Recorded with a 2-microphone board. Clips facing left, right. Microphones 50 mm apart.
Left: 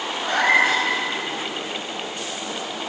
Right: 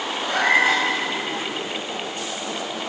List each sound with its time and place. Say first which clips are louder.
0.2 s a cat meowing: left 1 dB; 55° left (ahead or behind), 3 m